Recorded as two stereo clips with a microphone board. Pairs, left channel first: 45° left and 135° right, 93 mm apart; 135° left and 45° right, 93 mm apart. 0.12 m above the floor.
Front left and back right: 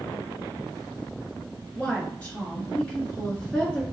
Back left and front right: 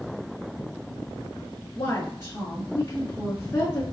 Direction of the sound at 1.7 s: 105° left.